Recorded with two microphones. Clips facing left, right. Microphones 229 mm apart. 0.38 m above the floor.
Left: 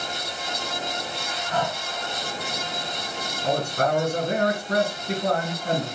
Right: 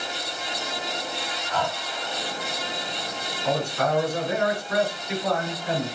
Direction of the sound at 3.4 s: 50° left (ahead or behind).